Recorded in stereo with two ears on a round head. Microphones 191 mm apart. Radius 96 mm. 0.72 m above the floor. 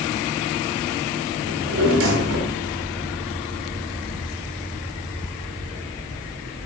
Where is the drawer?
70° right (ahead or behind), 1.7 m.